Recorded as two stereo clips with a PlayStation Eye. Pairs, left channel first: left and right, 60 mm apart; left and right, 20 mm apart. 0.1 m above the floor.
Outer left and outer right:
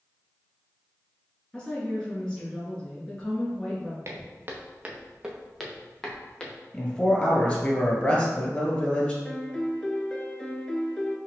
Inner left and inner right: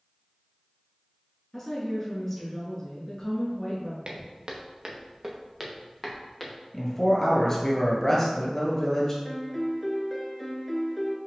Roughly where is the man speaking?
Left.